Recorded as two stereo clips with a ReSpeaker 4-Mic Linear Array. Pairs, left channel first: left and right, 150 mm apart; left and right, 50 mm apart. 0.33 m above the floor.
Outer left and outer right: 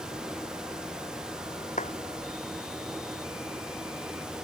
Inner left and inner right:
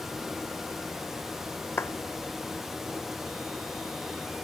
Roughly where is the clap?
Left.